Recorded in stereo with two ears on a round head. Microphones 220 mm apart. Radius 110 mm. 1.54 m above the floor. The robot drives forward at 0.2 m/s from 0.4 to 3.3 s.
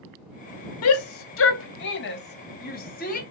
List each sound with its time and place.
0.8 s a shout: 65° left (ahead or behind), 0.5 m; by 3.2 s 35° left (ahead or behind), 0.9 m